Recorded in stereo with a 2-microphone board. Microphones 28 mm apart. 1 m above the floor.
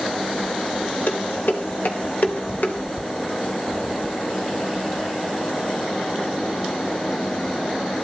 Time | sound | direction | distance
1.1 | dishes clattering | 65° left (ahead or behind) | 3 m